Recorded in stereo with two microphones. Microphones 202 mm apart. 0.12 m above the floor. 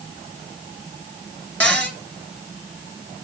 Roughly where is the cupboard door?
Centre.